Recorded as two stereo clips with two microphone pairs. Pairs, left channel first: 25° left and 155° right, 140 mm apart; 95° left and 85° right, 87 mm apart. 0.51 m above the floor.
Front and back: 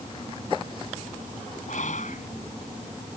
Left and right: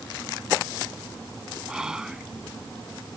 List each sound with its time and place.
1.7 s whispering: straight ahead